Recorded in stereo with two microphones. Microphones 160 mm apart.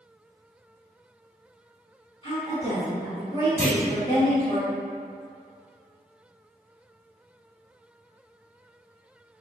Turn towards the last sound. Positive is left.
turn(degrees=20)  # may be behind; listen again after turning